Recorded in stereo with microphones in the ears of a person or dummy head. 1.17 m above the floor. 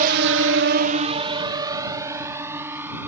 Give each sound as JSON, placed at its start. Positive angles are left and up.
{"t": 0.0, "sound": "a drone", "side_deg": -45}